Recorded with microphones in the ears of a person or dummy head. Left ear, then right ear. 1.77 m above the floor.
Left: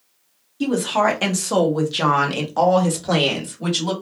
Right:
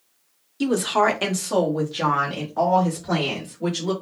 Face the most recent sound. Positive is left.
turn(degrees=50)  # may be behind; listen again after turning